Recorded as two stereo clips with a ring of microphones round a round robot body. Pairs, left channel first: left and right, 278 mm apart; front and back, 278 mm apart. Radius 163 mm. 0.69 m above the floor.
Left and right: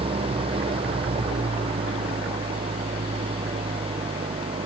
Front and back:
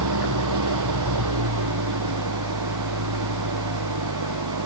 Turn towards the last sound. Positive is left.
turn(degrees=-165)